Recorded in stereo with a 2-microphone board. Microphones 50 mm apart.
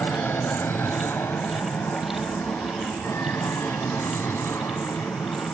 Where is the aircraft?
50° left (ahead or behind); by 5.5 s 65° left (ahead or behind).